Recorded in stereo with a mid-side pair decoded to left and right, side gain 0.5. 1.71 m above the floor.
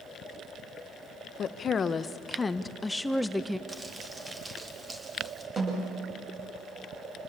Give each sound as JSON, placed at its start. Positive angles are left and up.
{"t": 1.4, "sound": "a woman speaking", "azimuth_deg": 50, "distance_m": 1.4}
{"t": 3.7, "sound": "crumpling", "azimuth_deg": -20, "distance_m": 4.0}
{"t": 5.6, "sound": "a snare drum", "azimuth_deg": -30, "distance_m": 10.0}